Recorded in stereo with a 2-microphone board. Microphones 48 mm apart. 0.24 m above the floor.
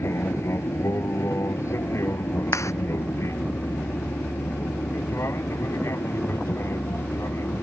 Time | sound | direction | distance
0.0 | an aircraft | 70° left (ahead or behind) | ?
2.5 | a clap | 80° left | ?